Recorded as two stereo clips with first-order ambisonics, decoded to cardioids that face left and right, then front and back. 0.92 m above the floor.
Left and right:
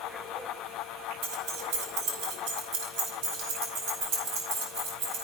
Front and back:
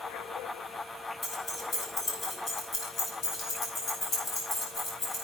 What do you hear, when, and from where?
1.2 s keys jangling: 65° right, 3 m; by 5.2 s 50° right, 5 m